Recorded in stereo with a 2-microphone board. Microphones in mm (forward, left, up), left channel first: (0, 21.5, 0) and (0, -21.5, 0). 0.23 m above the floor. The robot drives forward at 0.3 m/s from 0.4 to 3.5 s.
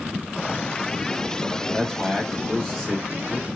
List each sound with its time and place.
1.7 s a man speaking: 10° left (ahead or behind), 0.9 m